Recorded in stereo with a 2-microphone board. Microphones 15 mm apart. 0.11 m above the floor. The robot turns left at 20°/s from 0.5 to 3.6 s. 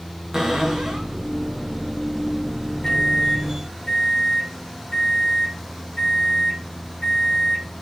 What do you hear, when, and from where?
0.3 s a cupboard door: 55° right (ahead or behind), 3.5 m; by 1.1 s 70° right (ahead or behind), 3.5 m
2.8 s a microwave: 45° left (ahead or behind), 3.5 m; by 7.7 s 60° left (ahead or behind), 3.5 m